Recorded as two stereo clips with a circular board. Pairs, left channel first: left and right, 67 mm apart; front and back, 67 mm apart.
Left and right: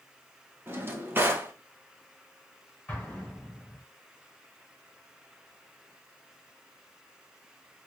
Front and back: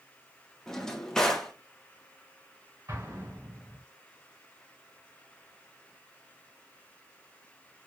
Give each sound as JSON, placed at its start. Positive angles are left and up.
{"t": 0.7, "sound": "a drawer", "azimuth_deg": -75, "distance_m": 0.8}
{"t": 2.9, "sound": "an explosion", "azimuth_deg": 155, "distance_m": 2.0}